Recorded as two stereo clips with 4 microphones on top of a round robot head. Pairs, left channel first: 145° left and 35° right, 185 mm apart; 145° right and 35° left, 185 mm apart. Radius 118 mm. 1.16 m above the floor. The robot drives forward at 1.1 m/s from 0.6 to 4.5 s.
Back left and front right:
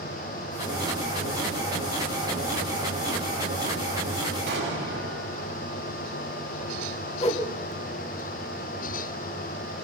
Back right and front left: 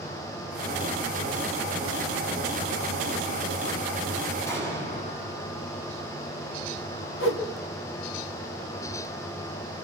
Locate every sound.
4.5 s an explosion: 65° right, 9 m
7.2 s a whoosh: 160° right, 2.5 m